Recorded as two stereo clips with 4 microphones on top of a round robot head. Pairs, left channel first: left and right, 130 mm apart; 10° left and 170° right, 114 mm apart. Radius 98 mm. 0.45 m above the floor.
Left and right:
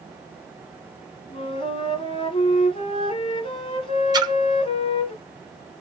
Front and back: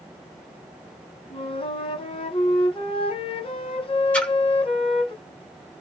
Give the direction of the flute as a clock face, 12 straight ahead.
11 o'clock.